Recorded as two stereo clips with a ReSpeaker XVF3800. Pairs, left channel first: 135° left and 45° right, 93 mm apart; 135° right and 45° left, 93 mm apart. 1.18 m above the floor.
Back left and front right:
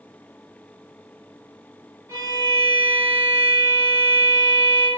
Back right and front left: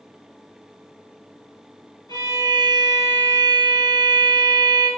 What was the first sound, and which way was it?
A violin, 90° right.